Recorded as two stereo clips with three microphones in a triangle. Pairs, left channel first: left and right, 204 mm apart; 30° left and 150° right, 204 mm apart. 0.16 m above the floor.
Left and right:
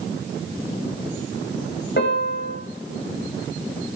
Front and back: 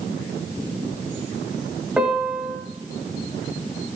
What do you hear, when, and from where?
2.0 s a piano: 125° left, 6 m